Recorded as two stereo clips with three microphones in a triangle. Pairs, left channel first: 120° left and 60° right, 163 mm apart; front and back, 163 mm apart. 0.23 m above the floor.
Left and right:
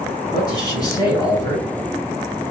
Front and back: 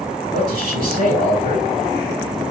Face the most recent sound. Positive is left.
turn(degrees=180)